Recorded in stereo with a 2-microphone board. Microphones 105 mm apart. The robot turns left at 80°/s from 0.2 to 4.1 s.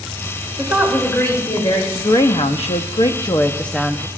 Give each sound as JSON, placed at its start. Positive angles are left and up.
{"t": 0.6, "sound": "a woman speaking", "azimuth_deg": -150, "distance_m": 3.5}
{"t": 1.9, "sound": "a woman speaking", "azimuth_deg": 150, "distance_m": 0.9}